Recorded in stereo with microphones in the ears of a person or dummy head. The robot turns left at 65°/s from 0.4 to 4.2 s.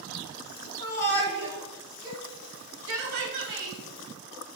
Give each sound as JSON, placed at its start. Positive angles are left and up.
{"t": 0.8, "sound": "a shout", "side_deg": 60, "distance_m": 3.0}